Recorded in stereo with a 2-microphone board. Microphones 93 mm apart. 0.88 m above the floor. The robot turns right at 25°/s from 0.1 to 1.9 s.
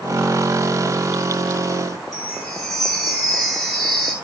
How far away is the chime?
About 4.5 m.